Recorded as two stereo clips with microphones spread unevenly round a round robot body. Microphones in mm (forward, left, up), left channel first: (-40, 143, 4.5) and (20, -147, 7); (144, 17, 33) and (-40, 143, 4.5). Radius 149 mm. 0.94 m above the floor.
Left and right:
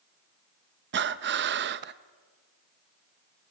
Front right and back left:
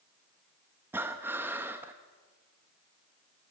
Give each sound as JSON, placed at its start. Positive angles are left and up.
{"t": 0.9, "sound": "breathing", "azimuth_deg": -135, "distance_m": 0.6}